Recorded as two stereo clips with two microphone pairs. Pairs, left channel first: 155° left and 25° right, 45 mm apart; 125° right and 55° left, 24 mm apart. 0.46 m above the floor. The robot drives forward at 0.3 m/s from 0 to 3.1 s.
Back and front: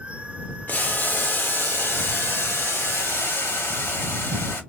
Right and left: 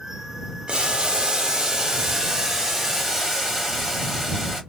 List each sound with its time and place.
0.7 s boiling: 105° left, 0.8 m; by 4.6 s 140° left, 1.2 m